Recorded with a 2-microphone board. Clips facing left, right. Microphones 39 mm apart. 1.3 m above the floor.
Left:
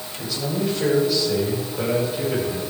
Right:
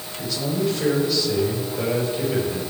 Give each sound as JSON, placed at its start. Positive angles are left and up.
{"t": 0.2, "sound": "a man speaking", "side_deg": 0, "distance_m": 7.0}